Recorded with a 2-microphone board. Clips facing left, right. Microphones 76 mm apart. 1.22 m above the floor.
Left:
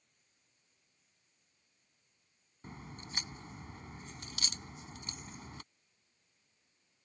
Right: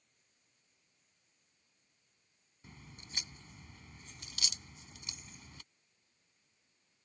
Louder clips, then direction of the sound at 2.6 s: Left 7 dB; 40° left (ahead or behind).